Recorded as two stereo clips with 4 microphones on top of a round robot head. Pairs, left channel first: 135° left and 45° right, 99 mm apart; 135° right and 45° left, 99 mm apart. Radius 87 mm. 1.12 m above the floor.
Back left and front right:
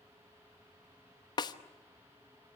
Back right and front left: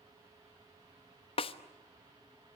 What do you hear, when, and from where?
1.4 s a snare drum: 170° right, 1.0 m